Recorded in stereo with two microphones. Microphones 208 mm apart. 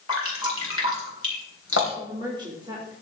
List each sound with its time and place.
0.1 s dripping: 80° left, 3.5 m
1.9 s a woman speaking: 20° right (ahead or behind), 2.5 m